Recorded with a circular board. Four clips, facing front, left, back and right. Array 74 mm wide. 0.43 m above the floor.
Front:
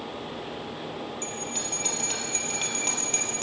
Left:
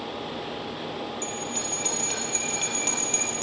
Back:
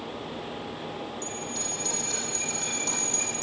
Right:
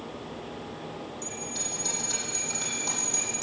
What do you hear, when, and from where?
1.2 s a bell: 40° left, 3 m